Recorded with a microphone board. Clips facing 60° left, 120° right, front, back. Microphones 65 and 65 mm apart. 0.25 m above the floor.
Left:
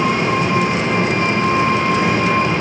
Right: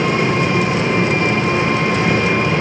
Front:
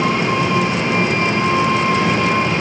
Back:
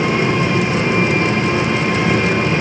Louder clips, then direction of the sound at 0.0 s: Even, back 1 dB; 120° right.